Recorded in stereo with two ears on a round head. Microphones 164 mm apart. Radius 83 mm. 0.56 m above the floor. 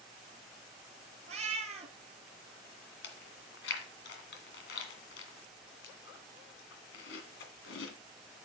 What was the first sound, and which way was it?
A cat meowing, 35° right (ahead or behind).